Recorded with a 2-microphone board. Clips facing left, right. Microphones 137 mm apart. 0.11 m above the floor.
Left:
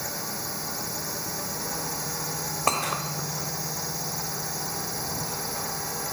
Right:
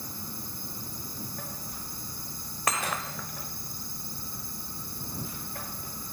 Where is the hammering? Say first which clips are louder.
Left 3 dB; 30° left (ahead or behind).